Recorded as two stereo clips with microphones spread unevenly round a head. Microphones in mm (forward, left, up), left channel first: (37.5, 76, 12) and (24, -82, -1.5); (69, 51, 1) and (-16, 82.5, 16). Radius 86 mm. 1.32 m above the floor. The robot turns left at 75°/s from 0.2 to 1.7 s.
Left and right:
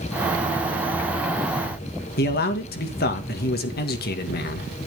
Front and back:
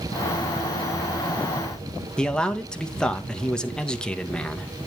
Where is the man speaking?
60° left, 1.8 m.